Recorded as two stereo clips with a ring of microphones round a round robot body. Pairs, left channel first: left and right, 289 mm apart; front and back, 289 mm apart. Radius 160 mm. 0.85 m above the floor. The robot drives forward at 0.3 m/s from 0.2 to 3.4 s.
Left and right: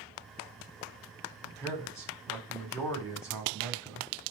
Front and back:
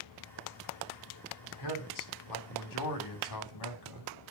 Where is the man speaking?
10° left, 3 m.